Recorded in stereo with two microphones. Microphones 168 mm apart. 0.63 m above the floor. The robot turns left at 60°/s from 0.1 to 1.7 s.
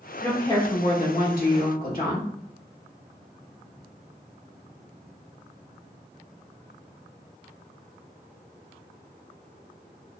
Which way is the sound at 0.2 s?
170° left.